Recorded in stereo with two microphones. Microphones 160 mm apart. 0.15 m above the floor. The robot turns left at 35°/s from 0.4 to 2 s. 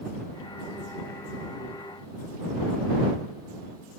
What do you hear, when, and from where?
Only background noise.